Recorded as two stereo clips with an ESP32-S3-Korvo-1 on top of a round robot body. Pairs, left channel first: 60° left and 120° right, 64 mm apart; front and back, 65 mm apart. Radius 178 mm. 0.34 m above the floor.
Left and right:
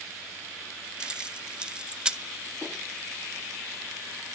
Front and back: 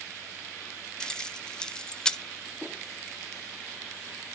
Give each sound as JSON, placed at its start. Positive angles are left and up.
{"t": 1.0, "sound": "keys jangling", "azimuth_deg": -60, "distance_m": 0.9}